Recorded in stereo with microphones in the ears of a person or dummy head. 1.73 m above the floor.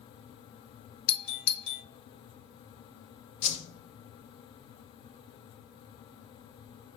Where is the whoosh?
45° left (ahead or behind), 1.2 m.